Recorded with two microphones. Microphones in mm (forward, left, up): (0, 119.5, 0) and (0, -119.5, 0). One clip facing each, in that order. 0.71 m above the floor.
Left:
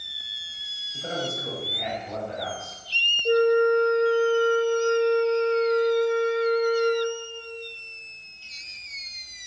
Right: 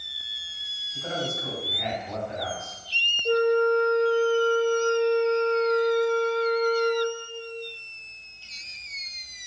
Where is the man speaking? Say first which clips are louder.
Left 1 dB; 35° left (ahead or behind), 1.5 m.